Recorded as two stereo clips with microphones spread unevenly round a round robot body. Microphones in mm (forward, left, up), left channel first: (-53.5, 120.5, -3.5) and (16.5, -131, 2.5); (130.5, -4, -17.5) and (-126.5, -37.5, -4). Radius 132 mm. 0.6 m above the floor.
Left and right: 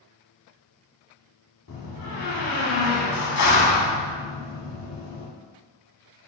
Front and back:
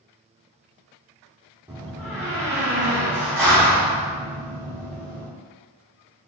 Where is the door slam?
105° left, 1.0 m.